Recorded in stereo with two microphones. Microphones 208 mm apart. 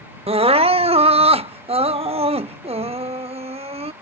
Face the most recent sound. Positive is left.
turn(degrees=-30)  # may be behind; listen again after turning